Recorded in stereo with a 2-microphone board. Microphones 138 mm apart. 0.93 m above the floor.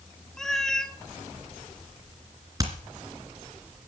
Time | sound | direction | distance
0.4 | a cat meowing | 5° left (ahead or behind) | 1.0 m
2.6 | hammering | 25° right (ahead or behind) | 2.5 m